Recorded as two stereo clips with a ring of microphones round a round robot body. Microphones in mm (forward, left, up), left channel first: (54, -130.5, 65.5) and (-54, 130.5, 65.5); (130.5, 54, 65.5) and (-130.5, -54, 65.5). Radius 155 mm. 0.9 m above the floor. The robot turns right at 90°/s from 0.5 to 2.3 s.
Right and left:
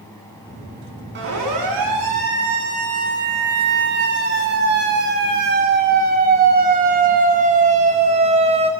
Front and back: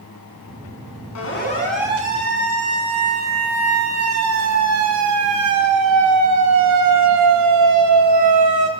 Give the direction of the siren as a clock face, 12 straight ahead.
10 o'clock.